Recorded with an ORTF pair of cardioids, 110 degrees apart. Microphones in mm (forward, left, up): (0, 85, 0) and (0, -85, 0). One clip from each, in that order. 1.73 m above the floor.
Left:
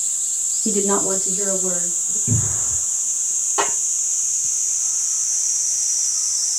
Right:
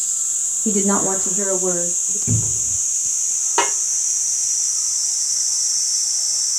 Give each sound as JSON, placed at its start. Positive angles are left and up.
{"t": 0.7, "sound": "a woman speaking", "azimuth_deg": 5, "distance_m": 0.6}
{"t": 2.3, "sound": "a cupboard door", "azimuth_deg": -25, "distance_m": 2.5}
{"t": 3.6, "sound": "a snare drum", "azimuth_deg": -40, "distance_m": 1.8}